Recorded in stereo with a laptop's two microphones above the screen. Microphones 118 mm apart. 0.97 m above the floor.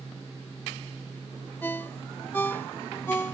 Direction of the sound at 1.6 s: 20° left (ahead or behind).